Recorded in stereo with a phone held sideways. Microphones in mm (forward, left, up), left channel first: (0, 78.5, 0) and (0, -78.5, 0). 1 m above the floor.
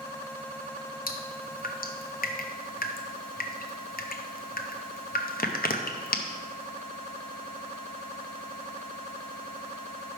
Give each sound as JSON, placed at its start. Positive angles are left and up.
{"t": 1.1, "sound": "dripping", "side_deg": 65, "distance_m": 0.6}